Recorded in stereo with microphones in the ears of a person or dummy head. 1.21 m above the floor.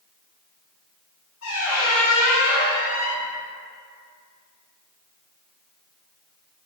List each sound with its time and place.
1.4 s a squeak: 80° left, 1.6 m